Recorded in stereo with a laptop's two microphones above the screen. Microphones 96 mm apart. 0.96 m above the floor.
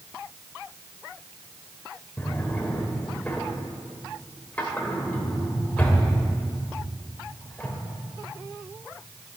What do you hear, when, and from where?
2.2 s a drawer: 15° left (ahead or behind), 2.0 m